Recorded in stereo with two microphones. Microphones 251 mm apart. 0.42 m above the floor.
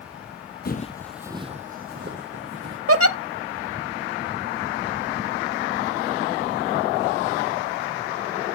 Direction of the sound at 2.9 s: 65° right (ahead or behind).